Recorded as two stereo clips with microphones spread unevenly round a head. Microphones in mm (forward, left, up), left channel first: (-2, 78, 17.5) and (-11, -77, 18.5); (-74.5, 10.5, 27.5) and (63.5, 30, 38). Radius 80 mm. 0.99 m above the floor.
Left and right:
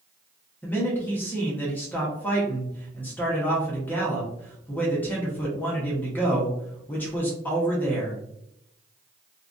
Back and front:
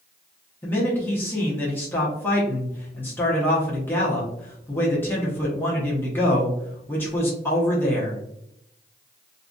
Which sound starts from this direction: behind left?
A man speaking, at 0.6 s.